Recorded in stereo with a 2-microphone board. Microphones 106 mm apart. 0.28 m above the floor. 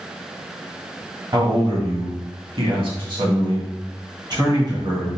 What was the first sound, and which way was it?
A man speaking, 45° right (ahead or behind).